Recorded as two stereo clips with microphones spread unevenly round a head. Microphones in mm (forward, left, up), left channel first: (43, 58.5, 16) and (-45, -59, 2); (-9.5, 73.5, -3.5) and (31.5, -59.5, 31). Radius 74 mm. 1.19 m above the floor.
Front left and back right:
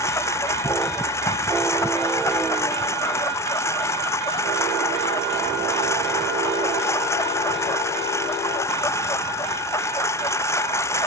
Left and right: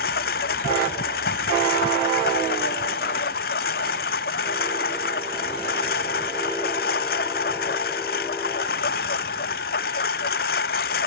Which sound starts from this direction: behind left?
A lawn mower, at 0.0 s.